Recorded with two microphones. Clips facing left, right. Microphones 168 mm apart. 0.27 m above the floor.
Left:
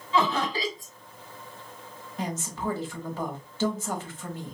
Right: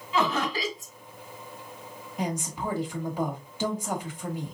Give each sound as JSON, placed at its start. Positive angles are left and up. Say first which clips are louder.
{"t": 0.1, "sound": "laughter", "louder": "left 1 dB", "side_deg": 20, "distance_m": 1.5}
{"t": 2.2, "sound": "a woman speaking", "louder": "right 1 dB", "side_deg": -15, "distance_m": 1.2}